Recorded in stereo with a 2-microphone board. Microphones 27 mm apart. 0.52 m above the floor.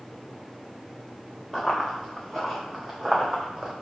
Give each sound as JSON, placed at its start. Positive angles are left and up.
{"t": 1.5, "sound": "running footsteps", "side_deg": 0, "distance_m": 2.5}